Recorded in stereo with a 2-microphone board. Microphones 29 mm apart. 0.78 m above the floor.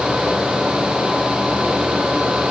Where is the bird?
I don't hear a bird.